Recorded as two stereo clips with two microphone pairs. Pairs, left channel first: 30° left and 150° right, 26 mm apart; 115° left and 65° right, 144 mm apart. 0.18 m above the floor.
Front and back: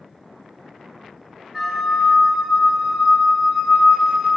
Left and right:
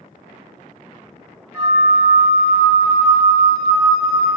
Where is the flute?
115° right, 1.1 m.